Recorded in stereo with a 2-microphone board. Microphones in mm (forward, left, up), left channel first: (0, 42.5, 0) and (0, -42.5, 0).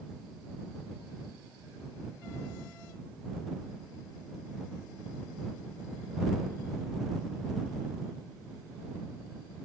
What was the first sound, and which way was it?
Only background noise.